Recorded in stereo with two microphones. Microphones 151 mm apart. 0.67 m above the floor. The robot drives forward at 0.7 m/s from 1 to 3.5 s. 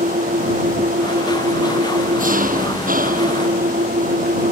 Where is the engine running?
75° right (ahead or behind); by 4.5 s 80° right.